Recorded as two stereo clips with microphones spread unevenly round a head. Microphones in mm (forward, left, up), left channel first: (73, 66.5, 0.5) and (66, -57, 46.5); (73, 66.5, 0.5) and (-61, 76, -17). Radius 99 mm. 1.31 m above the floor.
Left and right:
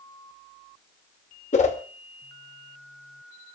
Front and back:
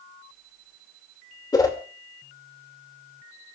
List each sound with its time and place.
1.5 s a whoosh: 55° left, 2.5 m